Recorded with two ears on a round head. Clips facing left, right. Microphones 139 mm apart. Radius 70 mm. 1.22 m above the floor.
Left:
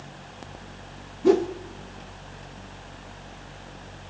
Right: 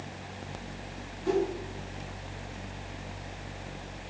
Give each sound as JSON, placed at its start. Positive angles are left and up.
{"t": 1.2, "sound": "a whoosh", "side_deg": 60, "distance_m": 0.8}